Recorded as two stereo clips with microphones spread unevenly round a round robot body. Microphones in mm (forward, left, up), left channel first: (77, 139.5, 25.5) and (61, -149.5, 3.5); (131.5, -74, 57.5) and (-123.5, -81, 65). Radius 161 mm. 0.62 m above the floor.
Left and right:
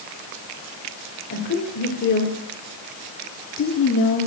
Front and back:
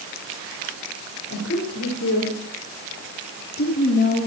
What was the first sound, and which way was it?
A woman speaking, 40° left.